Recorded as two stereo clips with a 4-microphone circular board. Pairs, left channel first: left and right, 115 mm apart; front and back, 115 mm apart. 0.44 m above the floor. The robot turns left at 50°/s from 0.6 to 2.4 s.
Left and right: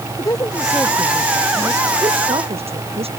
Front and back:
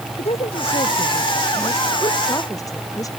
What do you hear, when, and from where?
0.2 s a woman speaking: 30° left; by 3.1 s 60° right